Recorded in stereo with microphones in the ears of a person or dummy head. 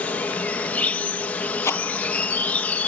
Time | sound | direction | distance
0.0 | an insect | 10° left (ahead or behind) | ?
1.6 | a rattle | 10° left (ahead or behind) | ?